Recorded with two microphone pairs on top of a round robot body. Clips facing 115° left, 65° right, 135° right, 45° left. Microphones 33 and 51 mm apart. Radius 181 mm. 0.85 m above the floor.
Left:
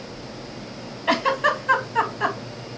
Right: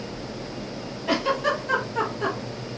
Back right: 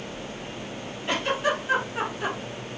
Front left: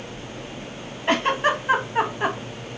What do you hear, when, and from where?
1.1 s a giggle: 95° left, 0.8 m